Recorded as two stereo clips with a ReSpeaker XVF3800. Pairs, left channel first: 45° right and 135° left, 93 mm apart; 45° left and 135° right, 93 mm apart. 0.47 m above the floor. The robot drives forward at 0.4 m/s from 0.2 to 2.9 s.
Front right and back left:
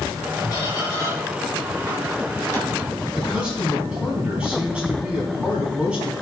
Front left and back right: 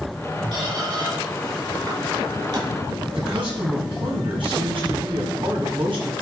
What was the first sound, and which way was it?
A squeak, 100° right.